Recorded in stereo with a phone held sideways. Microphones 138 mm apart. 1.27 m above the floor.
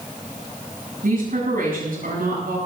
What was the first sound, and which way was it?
A woman speaking, 85° right.